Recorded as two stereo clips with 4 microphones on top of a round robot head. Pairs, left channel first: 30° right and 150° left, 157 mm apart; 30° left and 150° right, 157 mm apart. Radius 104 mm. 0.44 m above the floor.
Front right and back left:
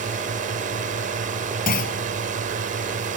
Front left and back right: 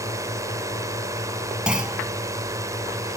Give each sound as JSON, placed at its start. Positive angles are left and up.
{"t": 0.0, "sound": "a drone", "azimuth_deg": 145}
{"t": 1.7, "sound": "a clunk", "azimuth_deg": -65}